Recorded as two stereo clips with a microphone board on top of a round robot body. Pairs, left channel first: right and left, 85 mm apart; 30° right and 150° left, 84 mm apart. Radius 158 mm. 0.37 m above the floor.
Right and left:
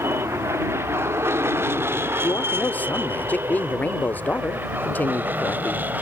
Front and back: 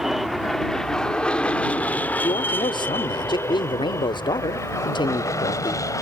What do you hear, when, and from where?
0.0 s an aircraft: 65° left; by 6.0 s 20° left
2.2 s a man speaking: 20° right